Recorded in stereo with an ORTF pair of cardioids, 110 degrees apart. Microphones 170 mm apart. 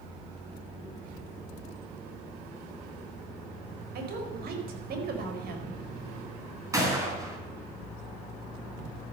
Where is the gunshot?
20° right, 4.5 m.